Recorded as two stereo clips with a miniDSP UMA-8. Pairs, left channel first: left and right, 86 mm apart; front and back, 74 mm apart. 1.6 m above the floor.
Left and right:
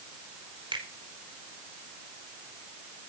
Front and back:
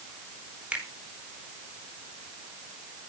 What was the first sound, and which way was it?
A finger snap, 105° right.